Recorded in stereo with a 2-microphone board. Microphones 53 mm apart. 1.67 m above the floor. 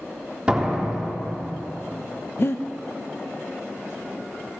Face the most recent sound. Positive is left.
turn(degrees=50)  # may be behind; listen again after turning